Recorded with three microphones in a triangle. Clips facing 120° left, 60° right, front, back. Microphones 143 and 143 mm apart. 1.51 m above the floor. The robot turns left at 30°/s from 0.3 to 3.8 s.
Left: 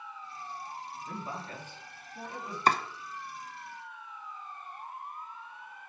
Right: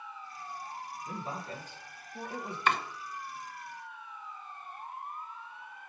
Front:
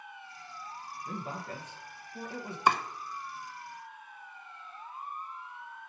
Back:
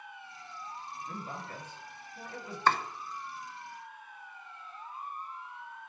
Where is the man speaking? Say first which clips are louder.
Right 1 dB, front 5 dB; 15° left, 1.9 m; by 2.6 s 30° right, 1.9 m.